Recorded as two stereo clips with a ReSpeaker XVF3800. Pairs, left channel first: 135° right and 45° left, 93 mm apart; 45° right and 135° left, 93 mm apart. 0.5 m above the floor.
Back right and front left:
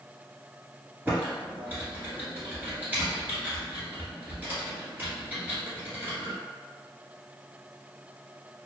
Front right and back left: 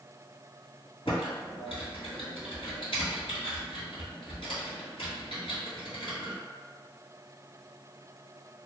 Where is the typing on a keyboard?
25° right, 1.6 m.